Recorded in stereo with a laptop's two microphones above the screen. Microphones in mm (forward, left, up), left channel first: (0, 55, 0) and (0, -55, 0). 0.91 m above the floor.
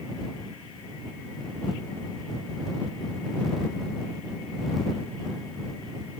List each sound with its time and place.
Only background noise.